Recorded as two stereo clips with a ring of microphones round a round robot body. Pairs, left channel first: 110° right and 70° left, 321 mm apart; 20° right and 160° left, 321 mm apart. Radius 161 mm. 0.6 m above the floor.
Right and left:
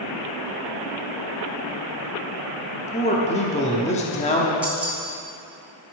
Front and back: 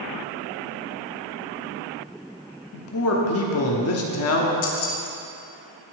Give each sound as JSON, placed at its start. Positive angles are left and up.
{"t": 2.7, "sound": "a man speaking", "azimuth_deg": -50, "distance_m": 1.0}
{"t": 4.6, "sound": "keys jangling", "azimuth_deg": -20, "distance_m": 1.2}